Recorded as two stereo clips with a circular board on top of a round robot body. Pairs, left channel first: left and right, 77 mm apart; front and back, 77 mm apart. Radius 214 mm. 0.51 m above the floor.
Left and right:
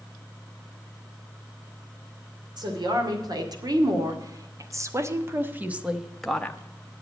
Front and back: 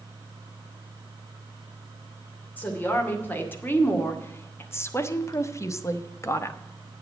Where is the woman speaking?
70° right, 2.5 m; by 6.6 s 25° left, 1.1 m.